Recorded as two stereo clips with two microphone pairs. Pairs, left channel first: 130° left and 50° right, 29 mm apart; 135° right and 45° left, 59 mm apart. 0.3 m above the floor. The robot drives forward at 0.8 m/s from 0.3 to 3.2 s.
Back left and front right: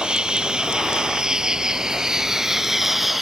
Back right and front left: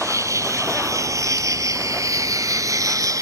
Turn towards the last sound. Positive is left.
turn(degrees=40)